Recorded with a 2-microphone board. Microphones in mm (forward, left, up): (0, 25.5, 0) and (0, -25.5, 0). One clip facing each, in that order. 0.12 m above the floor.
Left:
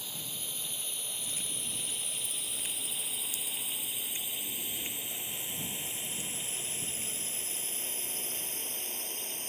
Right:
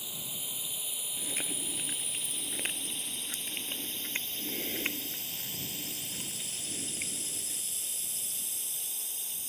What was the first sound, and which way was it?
A drone, 10° right (ahead or behind).